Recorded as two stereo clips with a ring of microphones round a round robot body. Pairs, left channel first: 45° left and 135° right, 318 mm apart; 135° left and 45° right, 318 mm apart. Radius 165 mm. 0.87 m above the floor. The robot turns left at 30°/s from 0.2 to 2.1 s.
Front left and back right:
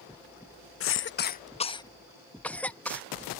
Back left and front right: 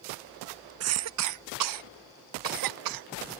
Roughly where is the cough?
Ahead.